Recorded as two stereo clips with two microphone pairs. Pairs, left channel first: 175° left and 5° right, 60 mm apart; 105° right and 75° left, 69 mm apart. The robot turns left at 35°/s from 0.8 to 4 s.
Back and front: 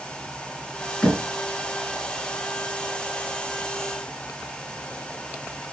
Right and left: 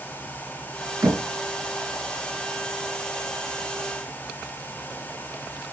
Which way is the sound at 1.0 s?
100° left.